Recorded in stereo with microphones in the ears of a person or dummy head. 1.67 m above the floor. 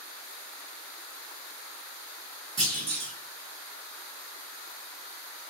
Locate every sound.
2.6 s a clunk: 35° right (ahead or behind), 1.2 m